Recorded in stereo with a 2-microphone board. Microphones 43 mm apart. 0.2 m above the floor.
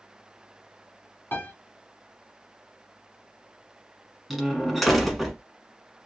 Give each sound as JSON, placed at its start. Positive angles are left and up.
{"t": 1.3, "sound": "a piano", "side_deg": 50, "distance_m": 1.5}
{"t": 4.3, "sound": "a door slam", "side_deg": 0, "distance_m": 1.2}